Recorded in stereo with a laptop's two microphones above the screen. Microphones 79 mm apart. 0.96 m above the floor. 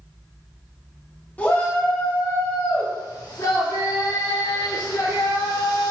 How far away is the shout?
About 1.4 m.